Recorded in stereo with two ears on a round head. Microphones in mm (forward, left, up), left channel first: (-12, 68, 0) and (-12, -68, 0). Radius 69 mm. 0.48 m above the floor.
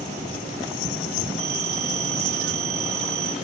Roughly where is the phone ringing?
Right.